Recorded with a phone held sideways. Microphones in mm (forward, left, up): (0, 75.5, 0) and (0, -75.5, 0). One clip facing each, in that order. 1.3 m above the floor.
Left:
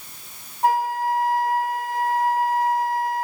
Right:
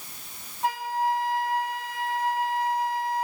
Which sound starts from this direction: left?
A flute, at 0.6 s.